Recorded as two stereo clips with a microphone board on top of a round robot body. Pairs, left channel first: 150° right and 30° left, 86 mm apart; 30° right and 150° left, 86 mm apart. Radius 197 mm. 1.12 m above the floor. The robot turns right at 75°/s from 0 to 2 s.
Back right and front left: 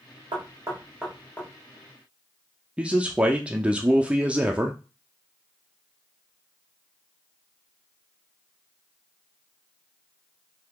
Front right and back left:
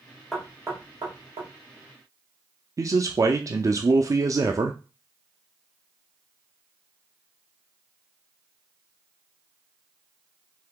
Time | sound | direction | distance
0.3 | knocking | 60° left | 1.2 m
2.8 | a man speaking | 105° left | 0.6 m